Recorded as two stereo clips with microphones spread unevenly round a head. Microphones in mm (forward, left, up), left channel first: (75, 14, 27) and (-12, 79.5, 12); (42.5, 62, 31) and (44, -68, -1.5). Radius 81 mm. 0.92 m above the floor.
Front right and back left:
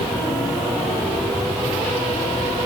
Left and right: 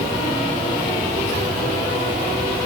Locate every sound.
Only background noise.